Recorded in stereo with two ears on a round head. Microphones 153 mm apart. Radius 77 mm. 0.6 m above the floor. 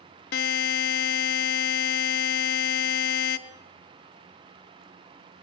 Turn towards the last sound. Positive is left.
turn(degrees=65)  # may be behind; listen again after turning